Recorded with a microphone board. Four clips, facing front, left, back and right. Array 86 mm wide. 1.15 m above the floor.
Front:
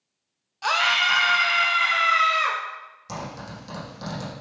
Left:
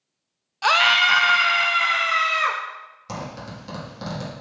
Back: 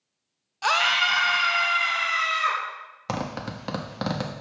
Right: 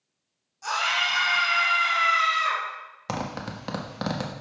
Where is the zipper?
145° right, 1.3 m.